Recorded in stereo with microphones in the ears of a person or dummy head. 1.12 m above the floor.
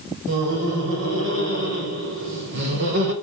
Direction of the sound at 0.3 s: 70° right (ahead or behind).